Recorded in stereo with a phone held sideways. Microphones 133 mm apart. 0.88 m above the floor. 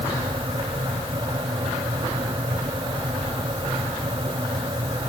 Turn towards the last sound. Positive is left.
turn(degrees=-40)  # may be behind; listen again after turning